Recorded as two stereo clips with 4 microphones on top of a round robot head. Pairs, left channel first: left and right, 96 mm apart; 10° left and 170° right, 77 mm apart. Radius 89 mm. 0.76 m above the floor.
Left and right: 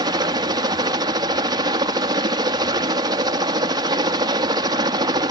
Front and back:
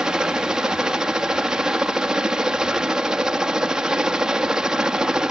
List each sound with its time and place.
0.0 s a helicopter: 90° right